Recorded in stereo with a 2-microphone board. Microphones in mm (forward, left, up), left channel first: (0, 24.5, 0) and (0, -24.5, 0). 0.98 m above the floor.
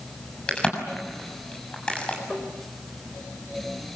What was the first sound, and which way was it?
A crack, 20° left (ahead or behind).